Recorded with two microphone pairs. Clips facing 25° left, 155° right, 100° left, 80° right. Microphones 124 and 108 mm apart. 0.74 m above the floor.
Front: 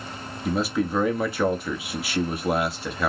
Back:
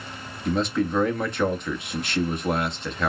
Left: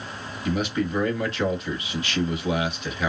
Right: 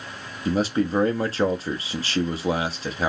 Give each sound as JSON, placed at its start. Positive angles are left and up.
{"t": 0.5, "sound": "a man speaking", "azimuth_deg": -55, "distance_m": 1.2}